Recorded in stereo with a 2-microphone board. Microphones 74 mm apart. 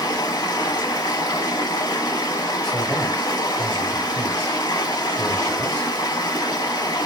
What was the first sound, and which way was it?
Running water, 70° left (ahead or behind).